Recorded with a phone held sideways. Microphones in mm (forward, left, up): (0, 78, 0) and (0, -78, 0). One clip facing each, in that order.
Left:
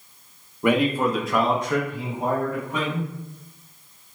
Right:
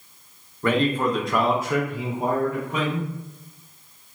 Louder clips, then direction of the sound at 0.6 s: Left 1 dB; 15° left (ahead or behind).